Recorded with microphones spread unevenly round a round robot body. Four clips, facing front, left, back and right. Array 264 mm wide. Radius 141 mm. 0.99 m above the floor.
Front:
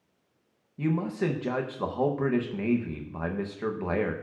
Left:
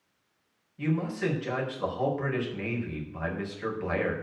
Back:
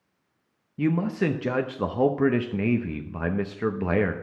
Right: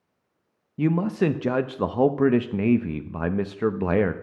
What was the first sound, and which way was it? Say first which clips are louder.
A man speaking: right 7 dB, back 4 dB; 110° right.